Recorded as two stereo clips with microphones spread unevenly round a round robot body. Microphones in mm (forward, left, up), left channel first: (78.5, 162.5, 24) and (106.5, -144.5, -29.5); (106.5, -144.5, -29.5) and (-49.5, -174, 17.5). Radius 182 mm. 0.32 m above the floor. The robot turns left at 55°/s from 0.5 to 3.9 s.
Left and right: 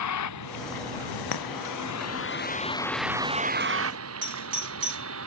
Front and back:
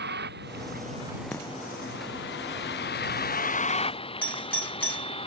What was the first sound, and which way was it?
A vehicle, 145° left.